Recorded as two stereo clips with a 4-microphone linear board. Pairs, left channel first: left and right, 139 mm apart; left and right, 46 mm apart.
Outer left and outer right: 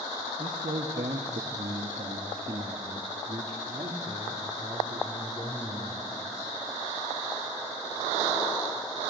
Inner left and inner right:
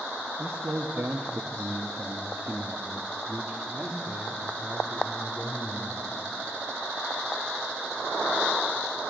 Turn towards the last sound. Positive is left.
turn(degrees=-30)  # may be behind; listen again after turning